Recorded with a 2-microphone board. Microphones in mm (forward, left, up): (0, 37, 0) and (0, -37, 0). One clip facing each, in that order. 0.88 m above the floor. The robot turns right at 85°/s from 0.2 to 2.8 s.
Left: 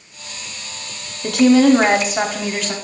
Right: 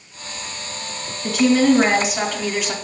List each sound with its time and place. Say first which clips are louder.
1.2 s a woman speaking: left 4 dB; 70° left, 1.6 m; by 2.7 s 165° right, 1.6 m